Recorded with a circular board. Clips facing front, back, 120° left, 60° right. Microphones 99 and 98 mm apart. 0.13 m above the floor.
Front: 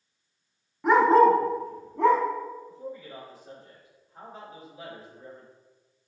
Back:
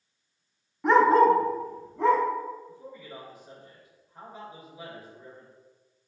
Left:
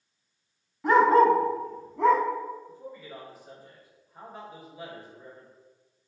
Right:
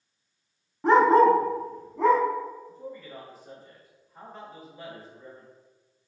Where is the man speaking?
45° left, 1.9 m.